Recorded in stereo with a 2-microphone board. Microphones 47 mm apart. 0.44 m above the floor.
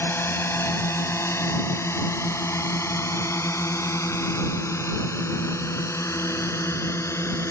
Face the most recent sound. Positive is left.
turn(degrees=70)  # may be behind; listen again after turning